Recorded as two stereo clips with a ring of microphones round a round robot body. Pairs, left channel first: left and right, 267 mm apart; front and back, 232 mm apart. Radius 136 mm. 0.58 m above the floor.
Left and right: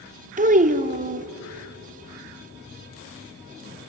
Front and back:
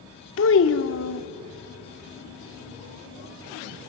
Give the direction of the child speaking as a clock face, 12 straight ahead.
1 o'clock.